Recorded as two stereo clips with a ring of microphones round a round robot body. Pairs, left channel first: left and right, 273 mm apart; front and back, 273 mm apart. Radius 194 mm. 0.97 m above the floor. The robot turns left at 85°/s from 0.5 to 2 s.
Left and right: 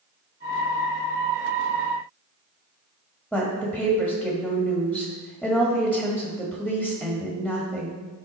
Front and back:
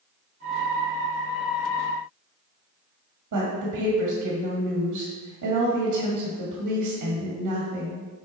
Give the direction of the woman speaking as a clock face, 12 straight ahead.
6 o'clock.